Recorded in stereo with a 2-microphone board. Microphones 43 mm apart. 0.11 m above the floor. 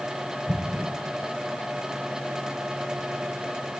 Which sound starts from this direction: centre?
An explosion, at 0.5 s.